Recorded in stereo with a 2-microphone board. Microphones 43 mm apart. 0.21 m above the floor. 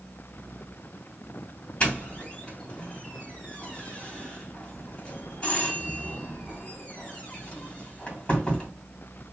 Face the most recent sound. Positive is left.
turn(degrees=20)  # may be behind; listen again after turning